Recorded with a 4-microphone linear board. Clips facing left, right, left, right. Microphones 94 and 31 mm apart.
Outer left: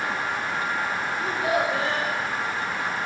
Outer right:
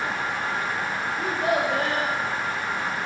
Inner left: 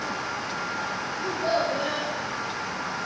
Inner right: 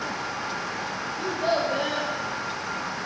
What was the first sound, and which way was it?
A child speaking, 55° right (ahead or behind).